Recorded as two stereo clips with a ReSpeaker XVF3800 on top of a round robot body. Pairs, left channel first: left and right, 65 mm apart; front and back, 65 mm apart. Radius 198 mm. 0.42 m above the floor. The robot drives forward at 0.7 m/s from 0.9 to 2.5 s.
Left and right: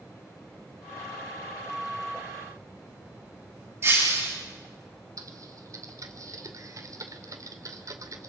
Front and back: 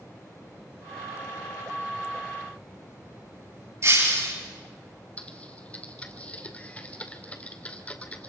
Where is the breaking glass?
140° right, 9 m.